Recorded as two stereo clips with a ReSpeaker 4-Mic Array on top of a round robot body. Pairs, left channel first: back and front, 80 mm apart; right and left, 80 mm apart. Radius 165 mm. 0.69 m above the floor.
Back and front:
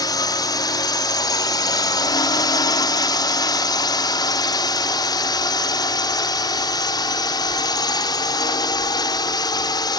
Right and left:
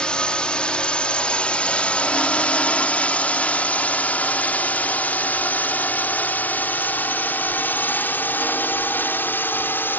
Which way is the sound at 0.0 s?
165° right.